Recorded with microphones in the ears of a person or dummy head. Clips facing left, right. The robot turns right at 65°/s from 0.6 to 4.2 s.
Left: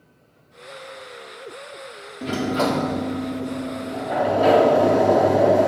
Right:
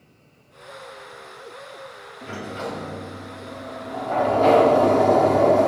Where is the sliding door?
45° left, 0.6 m; by 5.7 s 170° left, 0.6 m.